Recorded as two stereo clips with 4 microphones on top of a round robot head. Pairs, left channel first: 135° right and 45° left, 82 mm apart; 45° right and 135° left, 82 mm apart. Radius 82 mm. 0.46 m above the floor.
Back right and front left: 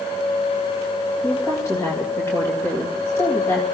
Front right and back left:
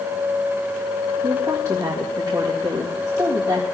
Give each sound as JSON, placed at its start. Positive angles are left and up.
{"t": 1.2, "sound": "a woman speaking", "azimuth_deg": 170, "distance_m": 3.0}